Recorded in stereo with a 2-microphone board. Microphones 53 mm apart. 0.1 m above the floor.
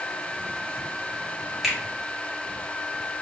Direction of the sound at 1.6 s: Centre (ahead or behind).